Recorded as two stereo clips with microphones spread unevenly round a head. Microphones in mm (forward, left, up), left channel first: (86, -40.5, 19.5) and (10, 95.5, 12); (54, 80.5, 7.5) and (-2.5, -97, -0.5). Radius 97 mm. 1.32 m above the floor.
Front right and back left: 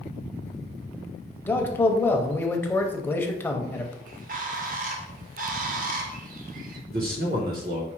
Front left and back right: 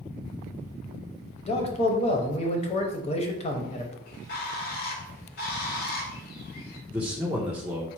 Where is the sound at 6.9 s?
170° left, 0.8 m.